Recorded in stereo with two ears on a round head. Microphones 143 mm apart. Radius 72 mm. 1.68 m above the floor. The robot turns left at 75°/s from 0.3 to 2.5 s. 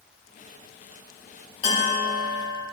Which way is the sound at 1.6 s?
40° left.